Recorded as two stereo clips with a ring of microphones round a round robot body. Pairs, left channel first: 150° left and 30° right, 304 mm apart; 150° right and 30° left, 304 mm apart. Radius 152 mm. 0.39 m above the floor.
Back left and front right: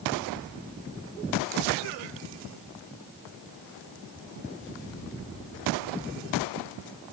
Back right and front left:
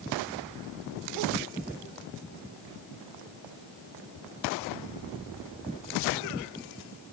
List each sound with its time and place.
Only background noise.